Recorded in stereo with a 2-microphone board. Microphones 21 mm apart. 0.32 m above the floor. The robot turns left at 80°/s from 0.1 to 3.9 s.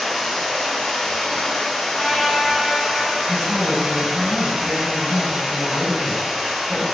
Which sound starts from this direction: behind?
Running water, at 0.0 s.